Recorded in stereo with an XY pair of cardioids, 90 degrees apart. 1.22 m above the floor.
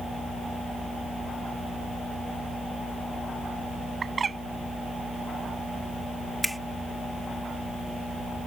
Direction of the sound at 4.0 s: 40° right.